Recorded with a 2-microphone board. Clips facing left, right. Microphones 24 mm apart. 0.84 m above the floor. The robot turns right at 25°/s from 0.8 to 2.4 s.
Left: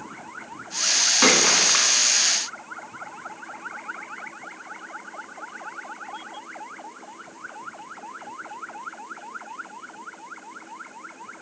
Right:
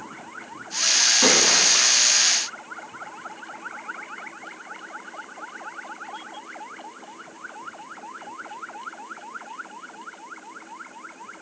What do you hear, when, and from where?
1.2 s a splash: 45° left (ahead or behind), 1.1 m; by 2.0 s 35° left (ahead or behind), 1.1 m